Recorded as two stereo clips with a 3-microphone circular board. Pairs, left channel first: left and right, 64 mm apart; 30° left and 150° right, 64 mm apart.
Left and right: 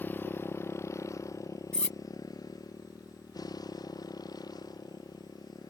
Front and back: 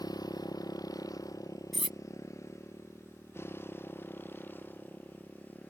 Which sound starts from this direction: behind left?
Cutlery clinking, at 1.7 s.